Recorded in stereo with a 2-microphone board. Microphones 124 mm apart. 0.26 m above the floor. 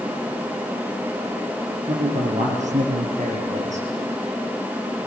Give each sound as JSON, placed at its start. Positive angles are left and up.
{"t": 1.9, "sound": "a man speaking", "side_deg": -80, "distance_m": 5.5}